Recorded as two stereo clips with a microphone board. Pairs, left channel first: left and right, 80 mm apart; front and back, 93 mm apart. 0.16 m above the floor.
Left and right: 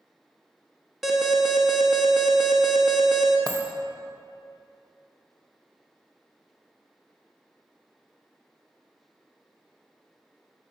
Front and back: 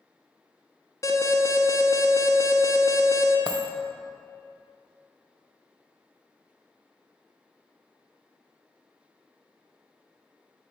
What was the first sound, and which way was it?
An alarm, straight ahead.